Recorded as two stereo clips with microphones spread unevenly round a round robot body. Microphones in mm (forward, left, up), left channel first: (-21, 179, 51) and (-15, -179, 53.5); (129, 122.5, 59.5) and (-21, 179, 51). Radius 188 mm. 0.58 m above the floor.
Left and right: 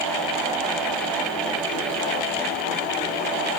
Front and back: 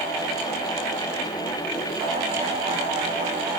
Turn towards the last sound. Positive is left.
No sound to turn to.